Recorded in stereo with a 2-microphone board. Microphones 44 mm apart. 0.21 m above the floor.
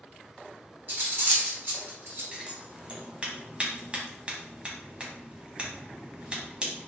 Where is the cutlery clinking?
50° right (ahead or behind), 1.3 m.